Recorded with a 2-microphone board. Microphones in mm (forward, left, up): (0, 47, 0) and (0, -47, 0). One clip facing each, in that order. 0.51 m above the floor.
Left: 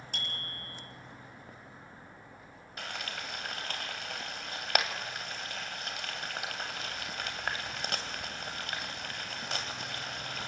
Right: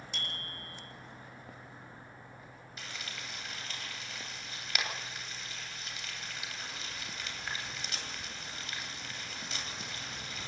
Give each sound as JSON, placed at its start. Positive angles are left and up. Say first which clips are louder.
{"t": 0.1, "sound": "a bicycle bell", "louder": "left 2 dB", "side_deg": 55, "distance_m": 8.0}
{"t": 2.8, "sound": "frying", "louder": "left 6 dB", "side_deg": 65, "distance_m": 2.5}